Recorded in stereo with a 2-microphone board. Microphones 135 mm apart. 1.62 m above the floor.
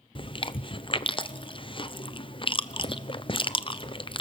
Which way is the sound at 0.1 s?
40° left (ahead or behind).